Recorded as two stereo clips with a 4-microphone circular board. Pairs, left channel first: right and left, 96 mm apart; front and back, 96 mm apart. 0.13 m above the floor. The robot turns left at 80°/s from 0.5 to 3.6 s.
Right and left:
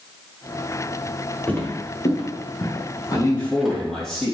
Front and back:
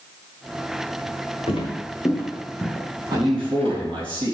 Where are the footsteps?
15° right, 2.5 m; by 3.8 s straight behind, 4 m.